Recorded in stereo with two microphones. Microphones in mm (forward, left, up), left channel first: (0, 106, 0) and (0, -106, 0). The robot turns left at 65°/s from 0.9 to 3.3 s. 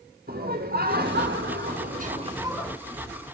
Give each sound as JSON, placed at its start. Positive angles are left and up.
{"t": 0.3, "sound": "laughter", "azimuth_deg": -60, "distance_m": 2.5}